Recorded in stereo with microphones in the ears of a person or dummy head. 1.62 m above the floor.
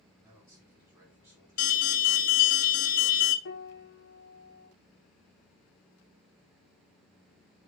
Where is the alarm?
40° left (ahead or behind), 0.8 m.